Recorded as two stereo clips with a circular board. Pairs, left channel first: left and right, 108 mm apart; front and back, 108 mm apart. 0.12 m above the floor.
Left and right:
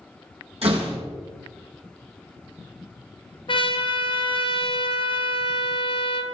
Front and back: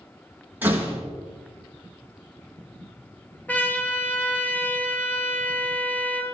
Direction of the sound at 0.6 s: 105° right.